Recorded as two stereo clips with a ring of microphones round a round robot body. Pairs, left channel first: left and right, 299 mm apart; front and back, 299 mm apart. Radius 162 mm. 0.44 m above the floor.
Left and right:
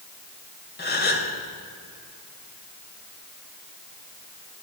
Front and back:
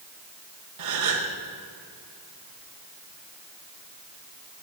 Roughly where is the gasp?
Behind left.